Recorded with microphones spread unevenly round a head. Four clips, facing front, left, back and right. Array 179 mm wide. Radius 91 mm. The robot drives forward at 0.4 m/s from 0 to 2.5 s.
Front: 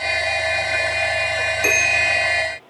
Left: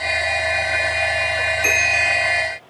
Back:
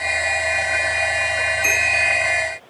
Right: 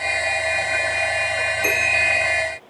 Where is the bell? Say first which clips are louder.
Left 1 dB, front 1 dB; 25° right, 1.1 m; by 2.3 s 35° right, 0.9 m.